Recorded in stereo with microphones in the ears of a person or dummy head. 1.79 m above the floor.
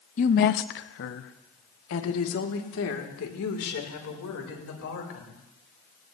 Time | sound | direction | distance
0.2 | a woman speaking | 40° left (ahead or behind) | 0.6 m